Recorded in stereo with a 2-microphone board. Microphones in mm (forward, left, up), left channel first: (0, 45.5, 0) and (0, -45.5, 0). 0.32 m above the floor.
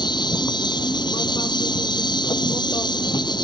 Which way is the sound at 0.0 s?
55° left (ahead or behind).